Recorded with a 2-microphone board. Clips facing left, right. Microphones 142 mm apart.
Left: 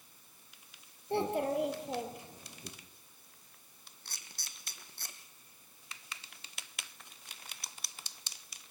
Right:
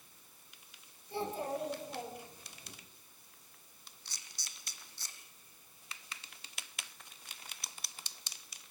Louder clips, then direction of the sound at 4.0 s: Left 3 dB; 50° left (ahead or behind).